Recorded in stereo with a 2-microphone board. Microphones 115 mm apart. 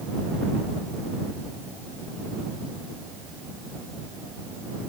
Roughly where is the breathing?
I don't hear breathing.